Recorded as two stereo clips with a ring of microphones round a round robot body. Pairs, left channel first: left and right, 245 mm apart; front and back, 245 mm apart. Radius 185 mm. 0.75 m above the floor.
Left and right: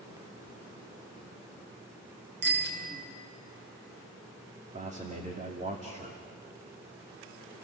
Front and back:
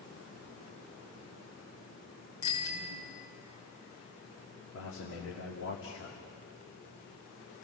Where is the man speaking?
30° right, 2.5 m.